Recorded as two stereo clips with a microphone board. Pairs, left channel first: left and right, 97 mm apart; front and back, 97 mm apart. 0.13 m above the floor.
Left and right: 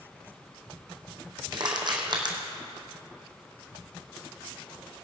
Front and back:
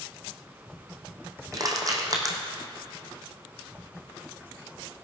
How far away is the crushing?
About 2.5 m.